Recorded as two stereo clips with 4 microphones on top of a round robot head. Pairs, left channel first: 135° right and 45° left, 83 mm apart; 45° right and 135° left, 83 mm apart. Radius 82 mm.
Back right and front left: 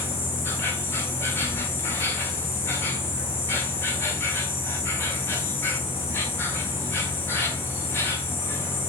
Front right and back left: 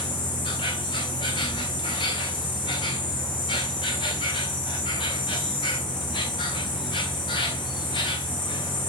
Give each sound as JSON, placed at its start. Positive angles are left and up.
{"t": 0.0, "sound": "an insect", "azimuth_deg": -70, "distance_m": 1.4}